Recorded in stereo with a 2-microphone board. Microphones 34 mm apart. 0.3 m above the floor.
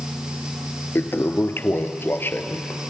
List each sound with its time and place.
0.9 s a toilet flushing: 85° left, 0.9 m